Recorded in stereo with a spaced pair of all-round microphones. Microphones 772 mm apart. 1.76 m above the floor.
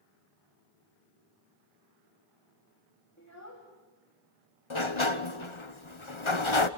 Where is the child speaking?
20° left (ahead or behind), 3 m.